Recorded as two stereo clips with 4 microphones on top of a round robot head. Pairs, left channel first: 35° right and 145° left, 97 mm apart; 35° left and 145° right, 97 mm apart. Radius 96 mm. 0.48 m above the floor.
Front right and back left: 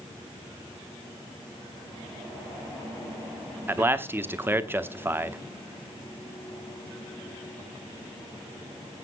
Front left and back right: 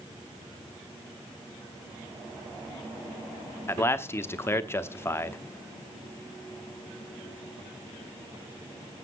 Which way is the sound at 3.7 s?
90° left.